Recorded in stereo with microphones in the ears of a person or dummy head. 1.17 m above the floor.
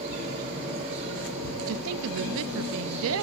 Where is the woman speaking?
80° right, 0.5 m.